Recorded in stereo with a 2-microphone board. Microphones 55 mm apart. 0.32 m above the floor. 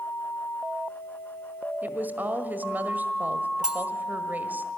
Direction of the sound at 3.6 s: 15° right (ahead or behind).